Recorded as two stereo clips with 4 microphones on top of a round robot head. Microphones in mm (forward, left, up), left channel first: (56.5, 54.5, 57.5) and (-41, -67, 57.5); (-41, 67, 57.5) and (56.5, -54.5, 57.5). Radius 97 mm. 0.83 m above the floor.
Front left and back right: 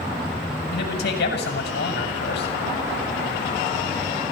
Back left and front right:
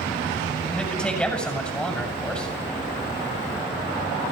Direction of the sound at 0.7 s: 45° left.